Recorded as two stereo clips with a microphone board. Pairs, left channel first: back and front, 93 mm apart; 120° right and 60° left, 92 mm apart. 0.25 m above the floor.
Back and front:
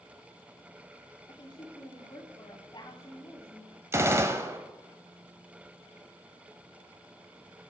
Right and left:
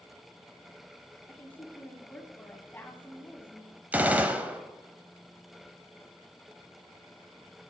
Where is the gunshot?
5° left, 1.1 m.